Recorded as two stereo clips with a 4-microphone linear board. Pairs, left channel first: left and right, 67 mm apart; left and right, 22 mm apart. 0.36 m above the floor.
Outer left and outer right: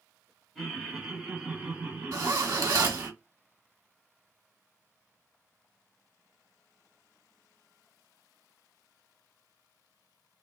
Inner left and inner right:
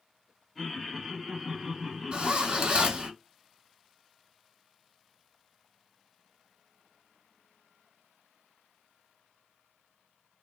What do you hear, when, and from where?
0.6 s laughter: centre (ahead or behind), 1.3 m; by 3.1 s 35° right (ahead or behind), 1.5 m
2.1 s a zipper: 60° right (ahead or behind), 1.1 m